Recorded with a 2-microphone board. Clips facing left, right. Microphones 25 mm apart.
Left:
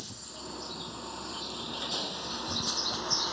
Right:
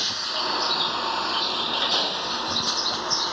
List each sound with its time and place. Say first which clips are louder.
0.0 s a vehicle: right 18 dB; 80° right; by 3.3 s 30° right (ahead or behind)